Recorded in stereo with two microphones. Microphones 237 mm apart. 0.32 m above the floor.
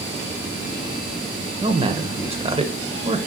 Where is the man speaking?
25° right (ahead or behind), 0.9 m.